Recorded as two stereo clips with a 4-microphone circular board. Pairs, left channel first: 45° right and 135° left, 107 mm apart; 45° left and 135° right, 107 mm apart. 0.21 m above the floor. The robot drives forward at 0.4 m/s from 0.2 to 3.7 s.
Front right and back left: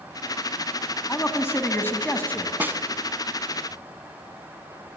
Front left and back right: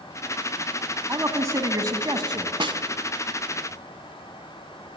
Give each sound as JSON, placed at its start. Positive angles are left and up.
{"t": 1.1, "sound": "a man speaking", "azimuth_deg": -90, "distance_m": 1.8}
{"t": 2.6, "sound": "a snare drum", "azimuth_deg": -155, "distance_m": 0.8}